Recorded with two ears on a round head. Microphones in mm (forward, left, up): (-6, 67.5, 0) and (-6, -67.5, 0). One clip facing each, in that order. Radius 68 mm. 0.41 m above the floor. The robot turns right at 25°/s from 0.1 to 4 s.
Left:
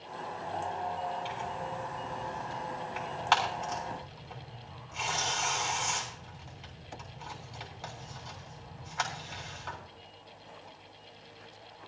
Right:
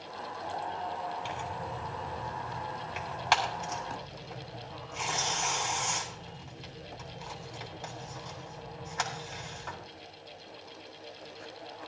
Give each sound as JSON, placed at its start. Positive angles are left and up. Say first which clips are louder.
{"t": 1.2, "sound": "tearing paper", "louder": "even", "side_deg": -60, "distance_m": 3.5}